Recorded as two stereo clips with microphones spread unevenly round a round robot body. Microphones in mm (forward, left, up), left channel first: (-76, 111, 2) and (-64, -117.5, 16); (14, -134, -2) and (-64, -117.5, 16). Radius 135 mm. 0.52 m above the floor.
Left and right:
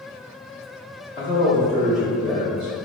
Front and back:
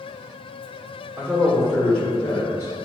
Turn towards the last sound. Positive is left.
turn(degrees=-45)